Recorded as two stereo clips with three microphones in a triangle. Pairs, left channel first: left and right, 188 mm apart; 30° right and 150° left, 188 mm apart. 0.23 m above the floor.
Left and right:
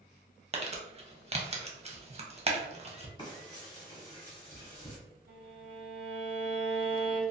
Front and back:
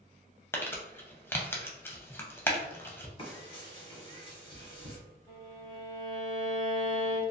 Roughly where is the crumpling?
Right.